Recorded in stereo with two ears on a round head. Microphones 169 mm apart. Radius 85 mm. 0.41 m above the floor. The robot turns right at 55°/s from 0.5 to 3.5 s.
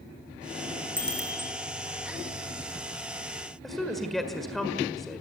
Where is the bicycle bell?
10° left (ahead or behind), 4.5 m; by 1.5 s 20° right (ahead or behind), 4.5 m.